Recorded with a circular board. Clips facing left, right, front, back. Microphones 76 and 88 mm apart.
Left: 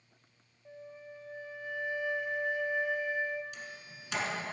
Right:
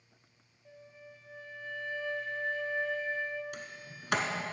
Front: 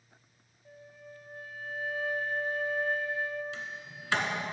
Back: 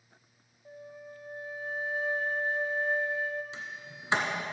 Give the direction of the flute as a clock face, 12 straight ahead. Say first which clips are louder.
Left 5 dB, back 4 dB; 7 o'clock.